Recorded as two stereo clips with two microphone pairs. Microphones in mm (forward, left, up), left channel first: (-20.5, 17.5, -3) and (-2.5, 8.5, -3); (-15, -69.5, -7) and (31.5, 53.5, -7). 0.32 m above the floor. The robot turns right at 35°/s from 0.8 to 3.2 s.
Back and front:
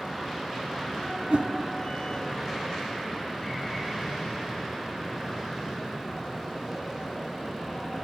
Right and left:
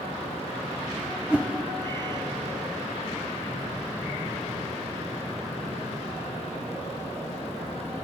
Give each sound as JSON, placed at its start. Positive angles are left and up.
{"t": 1.3, "sound": "a whoosh", "azimuth_deg": -10, "distance_m": 0.7}